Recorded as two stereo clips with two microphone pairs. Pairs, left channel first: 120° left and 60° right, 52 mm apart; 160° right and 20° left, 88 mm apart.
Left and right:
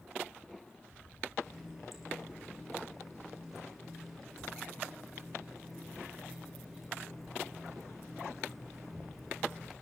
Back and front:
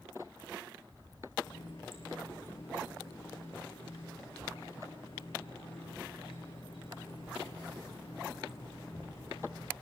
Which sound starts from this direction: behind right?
A running tap, at 1.4 s.